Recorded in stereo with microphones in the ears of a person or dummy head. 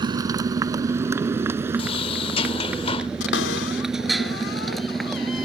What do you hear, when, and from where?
0.0 s a motorcycle: 20° right (ahead or behind); by 5.5 s 5° left (ahead or behind)
1.8 s a sliding door: 35° left (ahead or behind)
3.2 s a cupboard door: 60° left (ahead or behind)